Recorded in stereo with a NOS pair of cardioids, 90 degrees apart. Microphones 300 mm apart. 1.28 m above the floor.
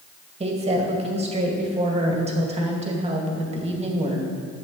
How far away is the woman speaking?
About 2 m.